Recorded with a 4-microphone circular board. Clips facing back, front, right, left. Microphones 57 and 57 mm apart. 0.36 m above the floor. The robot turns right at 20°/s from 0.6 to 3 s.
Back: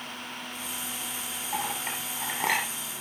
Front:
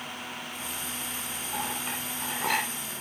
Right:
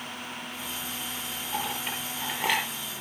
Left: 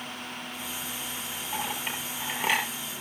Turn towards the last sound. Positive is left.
turn(degrees=-170)